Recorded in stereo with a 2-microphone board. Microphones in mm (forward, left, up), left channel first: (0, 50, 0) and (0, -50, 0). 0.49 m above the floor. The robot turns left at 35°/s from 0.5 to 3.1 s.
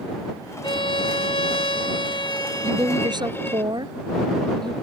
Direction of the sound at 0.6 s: 115° left.